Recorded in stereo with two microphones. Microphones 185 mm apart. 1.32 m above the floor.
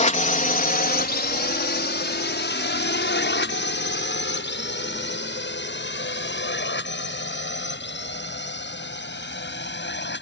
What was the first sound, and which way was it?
A drone, 40° left (ahead or behind).